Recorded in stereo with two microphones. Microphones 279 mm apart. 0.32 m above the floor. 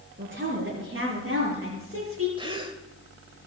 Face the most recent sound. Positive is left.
turn(degrees=-15)  # may be behind; listen again after turning